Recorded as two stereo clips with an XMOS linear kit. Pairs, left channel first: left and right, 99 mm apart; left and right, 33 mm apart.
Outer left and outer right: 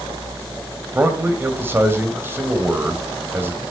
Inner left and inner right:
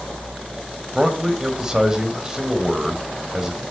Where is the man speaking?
20° right (ahead or behind), 2.5 m.